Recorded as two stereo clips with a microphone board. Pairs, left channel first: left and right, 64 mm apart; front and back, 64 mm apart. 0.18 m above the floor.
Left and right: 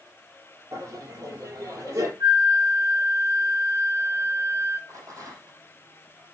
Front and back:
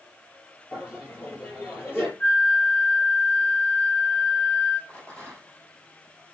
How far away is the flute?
About 7.5 m.